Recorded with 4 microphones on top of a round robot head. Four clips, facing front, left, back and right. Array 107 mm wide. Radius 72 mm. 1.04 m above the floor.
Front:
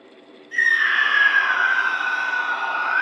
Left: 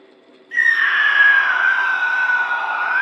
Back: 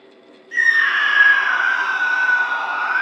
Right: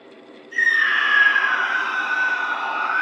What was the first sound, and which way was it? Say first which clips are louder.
A scream: left 3 dB, back 2 dB; 115° left.